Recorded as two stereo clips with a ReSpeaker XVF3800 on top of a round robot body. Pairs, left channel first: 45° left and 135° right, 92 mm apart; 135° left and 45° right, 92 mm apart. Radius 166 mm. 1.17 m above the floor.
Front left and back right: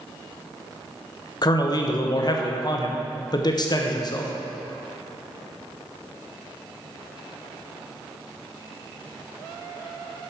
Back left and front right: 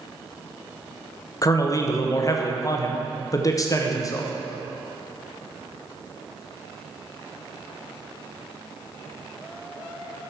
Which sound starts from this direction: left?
A man speaking, at 1.4 s.